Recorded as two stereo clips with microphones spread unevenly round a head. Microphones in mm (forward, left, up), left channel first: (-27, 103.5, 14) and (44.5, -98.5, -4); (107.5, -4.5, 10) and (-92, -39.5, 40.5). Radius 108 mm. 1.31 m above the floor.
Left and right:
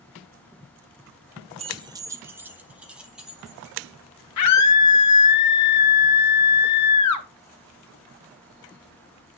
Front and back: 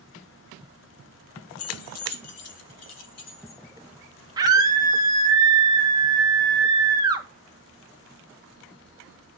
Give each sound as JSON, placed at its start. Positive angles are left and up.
{"t": 1.6, "sound": "keys jangling", "azimuth_deg": -5, "distance_m": 0.8}
{"t": 4.4, "sound": "a scream", "azimuth_deg": 115, "distance_m": 1.8}